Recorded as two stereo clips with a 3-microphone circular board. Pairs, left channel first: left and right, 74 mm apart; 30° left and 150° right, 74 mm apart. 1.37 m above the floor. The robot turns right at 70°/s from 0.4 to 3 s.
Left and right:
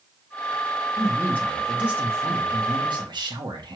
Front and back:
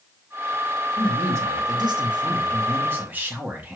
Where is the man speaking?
135° left, 1.3 m; by 3.8 s 85° right, 1.3 m.